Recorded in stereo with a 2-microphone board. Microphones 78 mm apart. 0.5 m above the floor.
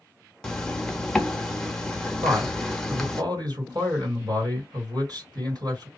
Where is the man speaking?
60° right (ahead or behind), 2.5 m.